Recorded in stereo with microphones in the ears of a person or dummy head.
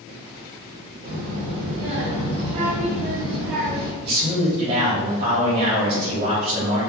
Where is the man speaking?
55° right (ahead or behind), 1.5 m.